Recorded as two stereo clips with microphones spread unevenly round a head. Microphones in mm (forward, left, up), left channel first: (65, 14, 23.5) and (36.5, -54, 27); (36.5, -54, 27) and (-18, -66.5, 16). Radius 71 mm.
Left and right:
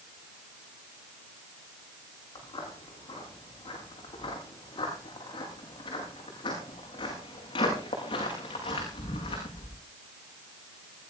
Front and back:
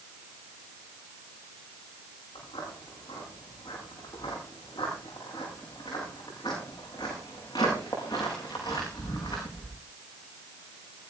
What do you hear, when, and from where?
2.4 s footsteps: 45° left, 9.5 m; by 9.8 s 75° left, 6.5 m